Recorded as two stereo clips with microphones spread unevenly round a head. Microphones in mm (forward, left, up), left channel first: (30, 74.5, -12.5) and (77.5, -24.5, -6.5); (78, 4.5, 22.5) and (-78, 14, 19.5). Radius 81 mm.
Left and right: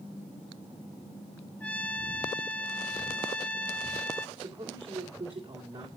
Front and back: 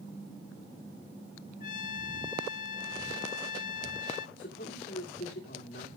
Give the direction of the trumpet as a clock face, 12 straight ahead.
11 o'clock.